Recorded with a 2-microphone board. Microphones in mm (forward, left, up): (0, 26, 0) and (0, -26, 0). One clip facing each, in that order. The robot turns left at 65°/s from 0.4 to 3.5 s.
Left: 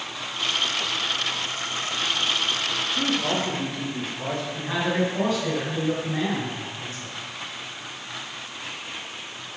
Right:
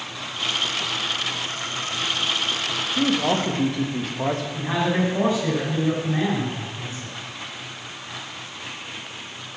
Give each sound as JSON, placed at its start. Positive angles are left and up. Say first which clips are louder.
{"t": 2.9, "sound": "a man speaking", "louder": "right 5 dB", "azimuth_deg": -35, "distance_m": 1.6}
{"t": 4.5, "sound": "a man speaking", "louder": "even", "side_deg": -20, "distance_m": 4.5}